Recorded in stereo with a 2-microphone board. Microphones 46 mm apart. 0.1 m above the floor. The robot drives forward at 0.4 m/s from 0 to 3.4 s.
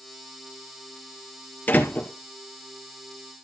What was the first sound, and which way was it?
A door slam, 35° left (ahead or behind).